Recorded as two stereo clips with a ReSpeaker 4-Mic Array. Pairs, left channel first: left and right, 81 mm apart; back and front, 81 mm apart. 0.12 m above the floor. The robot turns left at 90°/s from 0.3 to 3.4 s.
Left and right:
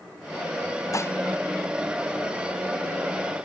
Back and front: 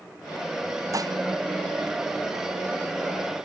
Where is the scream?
I don't hear a scream.